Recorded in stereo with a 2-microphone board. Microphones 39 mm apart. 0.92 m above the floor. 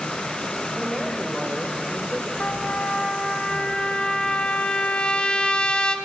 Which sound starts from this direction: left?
A trumpet, at 2.4 s.